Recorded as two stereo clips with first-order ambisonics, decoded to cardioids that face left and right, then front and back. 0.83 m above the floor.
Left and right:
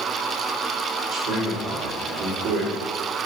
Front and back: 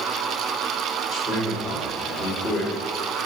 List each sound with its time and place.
1.1 s a man speaking: 75° right, 1.8 m